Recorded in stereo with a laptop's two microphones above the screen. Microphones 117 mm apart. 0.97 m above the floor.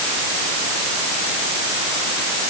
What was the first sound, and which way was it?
Only background noise.